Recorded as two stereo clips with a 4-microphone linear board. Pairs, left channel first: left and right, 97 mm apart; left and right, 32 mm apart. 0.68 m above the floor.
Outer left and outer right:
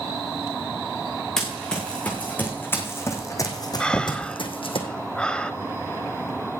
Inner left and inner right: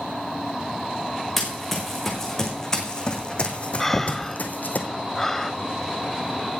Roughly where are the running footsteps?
Centre.